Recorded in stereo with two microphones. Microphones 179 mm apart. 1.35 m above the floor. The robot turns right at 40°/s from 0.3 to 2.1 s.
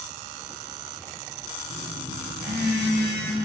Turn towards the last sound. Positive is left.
turn(degrees=-75)  # may be behind; listen again after turning